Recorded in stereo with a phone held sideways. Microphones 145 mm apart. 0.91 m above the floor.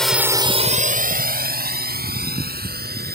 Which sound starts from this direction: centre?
A drone, at 0.0 s.